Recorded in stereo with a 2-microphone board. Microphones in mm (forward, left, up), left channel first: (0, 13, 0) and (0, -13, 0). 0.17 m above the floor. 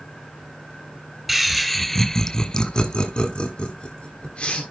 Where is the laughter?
5° right (ahead or behind), 1.5 m; by 4.6 s 45° left (ahead or behind), 2.5 m.